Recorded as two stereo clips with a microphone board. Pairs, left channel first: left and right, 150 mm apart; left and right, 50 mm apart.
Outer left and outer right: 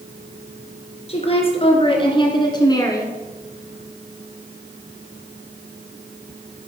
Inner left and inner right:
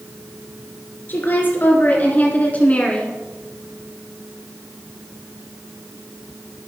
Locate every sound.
1.1 s a woman speaking: 45° left (ahead or behind), 2.5 m; by 3.2 s 20° left (ahead or behind), 1.7 m